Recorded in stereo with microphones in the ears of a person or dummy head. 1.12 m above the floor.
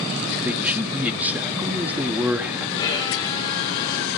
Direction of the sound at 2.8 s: 20° left (ahead or behind).